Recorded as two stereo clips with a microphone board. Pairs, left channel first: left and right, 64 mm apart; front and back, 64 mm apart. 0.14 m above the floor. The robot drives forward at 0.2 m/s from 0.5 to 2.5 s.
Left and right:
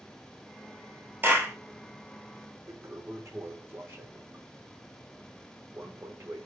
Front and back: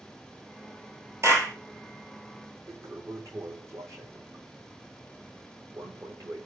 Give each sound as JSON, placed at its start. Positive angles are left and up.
{"t": 1.2, "sound": "a clap", "azimuth_deg": -140, "distance_m": 2.0}
{"t": 2.7, "sound": "a toilet flushing", "azimuth_deg": -140, "distance_m": 1.2}